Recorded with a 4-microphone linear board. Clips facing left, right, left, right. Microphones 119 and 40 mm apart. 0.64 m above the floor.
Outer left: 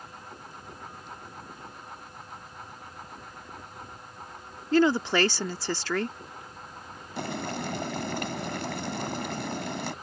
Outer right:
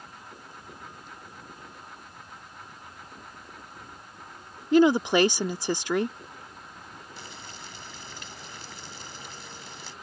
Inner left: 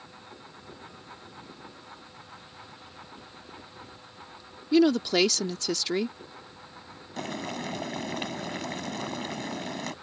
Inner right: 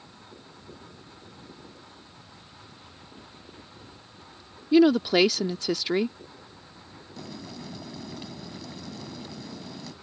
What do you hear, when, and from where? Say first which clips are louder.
4.7 s a woman speaking: outer right 3 dB, inner right 3 dB; 20° right (ahead or behind)
7.2 s boiling: outer left 17 dB, inner left 7 dB; 75° left (ahead or behind)